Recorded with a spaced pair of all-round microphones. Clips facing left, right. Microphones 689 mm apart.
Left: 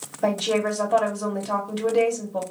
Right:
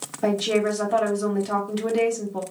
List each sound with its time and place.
0.2 s a woman speaking: 5° left (ahead or behind), 1.1 m